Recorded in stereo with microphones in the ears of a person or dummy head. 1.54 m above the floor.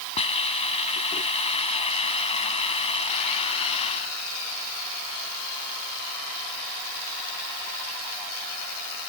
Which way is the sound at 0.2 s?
30° left (ahead or behind).